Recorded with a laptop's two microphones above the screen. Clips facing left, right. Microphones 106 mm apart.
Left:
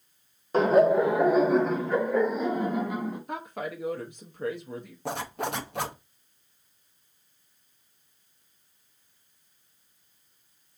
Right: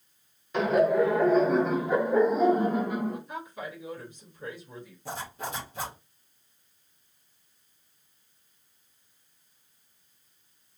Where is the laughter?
35° left (ahead or behind), 1.0 m; by 3.2 s 50° right (ahead or behind), 1.2 m.